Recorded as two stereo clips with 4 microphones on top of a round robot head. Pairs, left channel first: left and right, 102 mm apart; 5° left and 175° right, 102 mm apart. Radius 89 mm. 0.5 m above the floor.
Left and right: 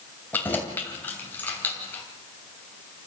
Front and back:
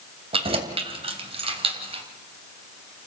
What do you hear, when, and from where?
0.3 s keys jangling: 165° left, 2.5 m